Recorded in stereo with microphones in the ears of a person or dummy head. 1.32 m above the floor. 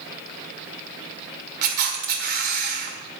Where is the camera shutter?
45° right (ahead or behind), 1.7 m.